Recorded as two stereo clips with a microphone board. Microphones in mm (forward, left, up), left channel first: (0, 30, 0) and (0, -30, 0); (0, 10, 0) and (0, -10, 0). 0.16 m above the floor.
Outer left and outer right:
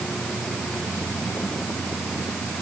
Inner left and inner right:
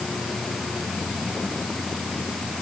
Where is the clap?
No clap in this recording.